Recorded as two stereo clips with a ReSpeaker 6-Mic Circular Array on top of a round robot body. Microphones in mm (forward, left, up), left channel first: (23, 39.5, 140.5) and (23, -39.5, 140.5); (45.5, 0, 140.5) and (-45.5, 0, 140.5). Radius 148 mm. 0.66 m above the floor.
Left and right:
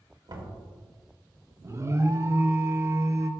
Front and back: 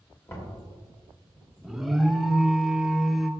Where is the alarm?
95° right, 0.8 m.